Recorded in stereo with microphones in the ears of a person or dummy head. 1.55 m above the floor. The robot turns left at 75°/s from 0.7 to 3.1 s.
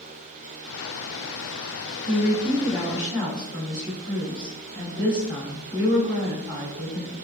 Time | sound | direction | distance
2.0 | a woman speaking | 60° left | 1.6 m